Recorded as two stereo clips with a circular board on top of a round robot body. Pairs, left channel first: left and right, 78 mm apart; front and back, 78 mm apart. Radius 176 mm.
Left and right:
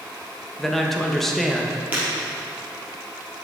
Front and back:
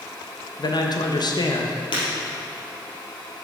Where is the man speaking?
5° left, 1.2 m.